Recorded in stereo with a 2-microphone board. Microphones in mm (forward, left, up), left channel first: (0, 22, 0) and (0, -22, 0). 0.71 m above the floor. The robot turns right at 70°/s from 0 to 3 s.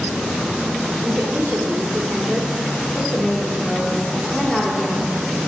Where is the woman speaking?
130° right, 2 m; by 5.1 s 10° left, 2 m.